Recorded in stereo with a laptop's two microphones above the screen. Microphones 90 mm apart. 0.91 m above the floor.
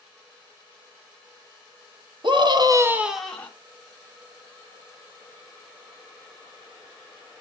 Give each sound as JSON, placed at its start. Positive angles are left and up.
{"t": 2.2, "sound": "a scream", "side_deg": -60, "distance_m": 1.1}